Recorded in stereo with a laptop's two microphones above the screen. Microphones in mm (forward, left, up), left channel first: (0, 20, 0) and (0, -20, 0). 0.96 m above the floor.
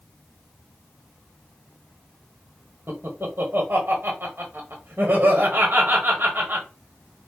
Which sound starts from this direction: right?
Laughter, at 2.9 s.